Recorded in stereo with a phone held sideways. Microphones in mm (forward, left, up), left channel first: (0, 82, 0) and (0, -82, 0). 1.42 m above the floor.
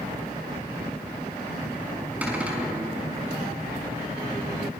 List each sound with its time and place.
2.2 s a cupboard door: 10° right (ahead or behind), 5 m